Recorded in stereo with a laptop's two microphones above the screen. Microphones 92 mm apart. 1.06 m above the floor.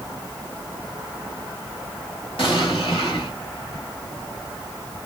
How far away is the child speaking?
No child speaking in this recording.